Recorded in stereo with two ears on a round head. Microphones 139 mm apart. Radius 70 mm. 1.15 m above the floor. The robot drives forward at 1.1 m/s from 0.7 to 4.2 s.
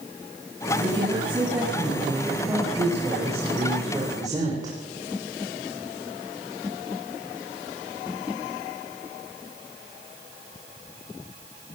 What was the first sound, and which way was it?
A woman speaking, 10° right (ahead or behind).